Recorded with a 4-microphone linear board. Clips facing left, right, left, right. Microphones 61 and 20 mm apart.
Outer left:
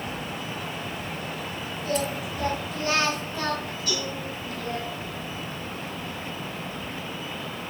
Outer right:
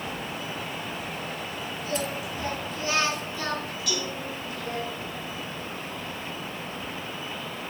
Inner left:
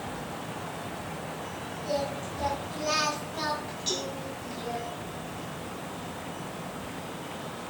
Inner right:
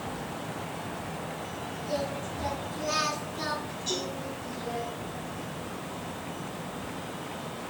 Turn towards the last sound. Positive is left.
turn(degrees=35)  # may be behind; listen again after turning